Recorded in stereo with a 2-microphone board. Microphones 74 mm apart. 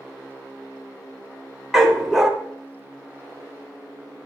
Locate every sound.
1.7 s a dog barking: 5° right (ahead or behind), 1.1 m